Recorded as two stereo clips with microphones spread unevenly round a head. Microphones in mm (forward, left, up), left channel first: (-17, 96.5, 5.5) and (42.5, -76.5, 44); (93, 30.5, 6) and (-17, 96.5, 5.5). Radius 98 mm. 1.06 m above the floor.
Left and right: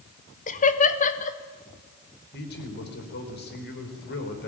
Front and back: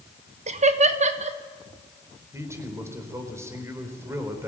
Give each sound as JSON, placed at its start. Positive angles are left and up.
{"t": 0.5, "sound": "laughter", "azimuth_deg": 135, "distance_m": 1.3}
{"t": 2.3, "sound": "a man speaking", "azimuth_deg": 80, "distance_m": 4.0}